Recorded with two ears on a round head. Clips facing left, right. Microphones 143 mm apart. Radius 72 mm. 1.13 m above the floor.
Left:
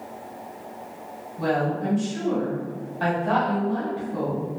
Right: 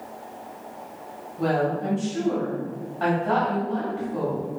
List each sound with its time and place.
1.4 s a woman speaking: 20° left (ahead or behind), 1.8 m